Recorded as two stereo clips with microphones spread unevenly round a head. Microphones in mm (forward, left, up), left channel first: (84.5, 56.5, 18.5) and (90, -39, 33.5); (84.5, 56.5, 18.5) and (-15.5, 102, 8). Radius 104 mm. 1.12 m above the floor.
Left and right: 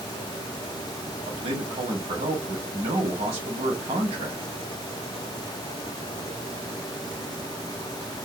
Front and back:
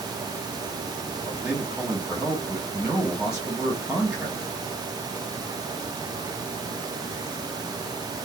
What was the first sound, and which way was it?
A man speaking, 125° right.